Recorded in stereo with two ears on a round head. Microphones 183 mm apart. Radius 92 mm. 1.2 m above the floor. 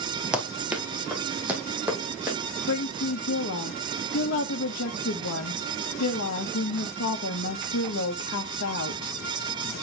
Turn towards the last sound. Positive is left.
turn(degrees=75)  # may be behind; listen again after turning